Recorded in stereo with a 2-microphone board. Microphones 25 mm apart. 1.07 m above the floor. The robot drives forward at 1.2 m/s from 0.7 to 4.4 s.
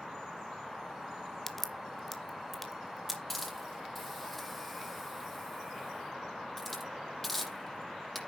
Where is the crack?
15° left (ahead or behind), 1.0 m; by 3.2 s 5° left (ahead or behind), 3 m.